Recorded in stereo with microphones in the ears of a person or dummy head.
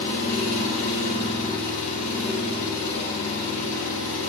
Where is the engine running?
45° left (ahead or behind), 1.5 m.